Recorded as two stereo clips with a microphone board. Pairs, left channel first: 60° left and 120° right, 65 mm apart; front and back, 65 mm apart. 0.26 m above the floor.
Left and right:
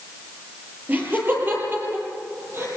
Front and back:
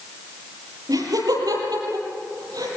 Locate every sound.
0.9 s laughter: straight behind, 7.5 m; by 2.7 s 170° right, 9.5 m